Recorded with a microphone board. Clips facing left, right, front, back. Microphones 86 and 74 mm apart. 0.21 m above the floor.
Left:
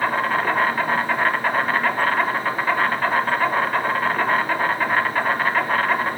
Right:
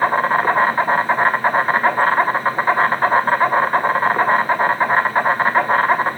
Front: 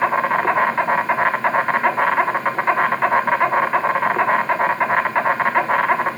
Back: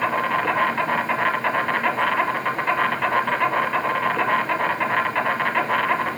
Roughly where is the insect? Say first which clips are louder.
Right 5 dB, front 4 dB; ahead right.